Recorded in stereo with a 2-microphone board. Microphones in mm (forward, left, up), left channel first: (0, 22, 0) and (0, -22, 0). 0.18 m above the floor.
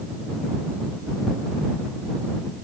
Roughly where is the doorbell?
No doorbell in this recording.